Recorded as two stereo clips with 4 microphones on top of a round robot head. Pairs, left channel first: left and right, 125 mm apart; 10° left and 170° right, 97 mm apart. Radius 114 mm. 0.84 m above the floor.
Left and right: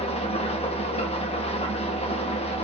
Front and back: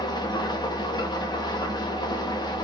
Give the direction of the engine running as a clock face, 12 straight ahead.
10 o'clock.